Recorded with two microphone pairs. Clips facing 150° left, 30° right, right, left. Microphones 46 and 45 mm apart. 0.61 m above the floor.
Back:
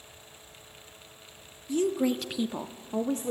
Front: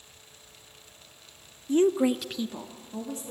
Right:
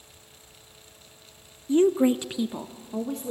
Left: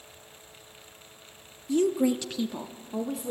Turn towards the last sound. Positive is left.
turn(degrees=175)